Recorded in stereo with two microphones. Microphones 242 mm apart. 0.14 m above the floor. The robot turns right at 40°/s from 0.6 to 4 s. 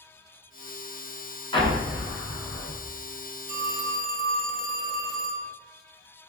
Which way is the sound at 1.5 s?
25° left (ahead or behind).